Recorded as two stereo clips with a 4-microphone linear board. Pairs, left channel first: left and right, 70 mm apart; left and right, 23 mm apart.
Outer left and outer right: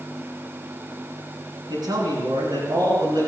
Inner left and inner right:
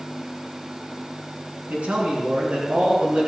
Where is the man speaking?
75° right (ahead or behind), 6.5 m.